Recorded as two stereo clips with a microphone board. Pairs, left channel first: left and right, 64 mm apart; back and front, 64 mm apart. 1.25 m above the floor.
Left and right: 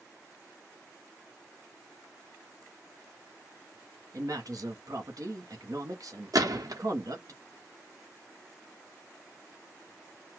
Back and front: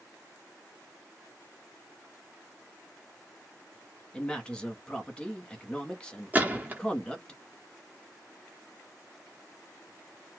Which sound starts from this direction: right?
A man speaking, at 4.1 s.